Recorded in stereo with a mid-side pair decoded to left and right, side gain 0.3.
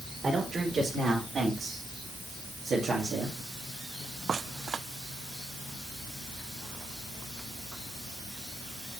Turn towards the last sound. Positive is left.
turn(degrees=-80)